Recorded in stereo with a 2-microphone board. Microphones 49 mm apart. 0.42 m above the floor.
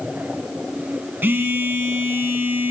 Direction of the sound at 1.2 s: 45° right (ahead or behind).